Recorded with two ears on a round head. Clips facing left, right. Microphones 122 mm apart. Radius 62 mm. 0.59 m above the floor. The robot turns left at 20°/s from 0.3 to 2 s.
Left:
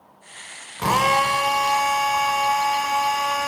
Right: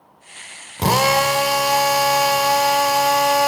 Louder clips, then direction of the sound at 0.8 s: Right 3 dB; 35° right (ahead or behind).